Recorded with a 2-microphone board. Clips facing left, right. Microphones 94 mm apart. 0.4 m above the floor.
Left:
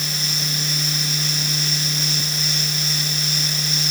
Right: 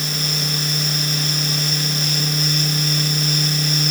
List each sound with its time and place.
Only background noise.